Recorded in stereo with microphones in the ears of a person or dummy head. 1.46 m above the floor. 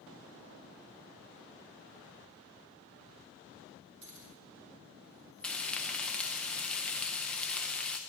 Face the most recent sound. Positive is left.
turn(degrees=5)  # may be behind; listen again after turning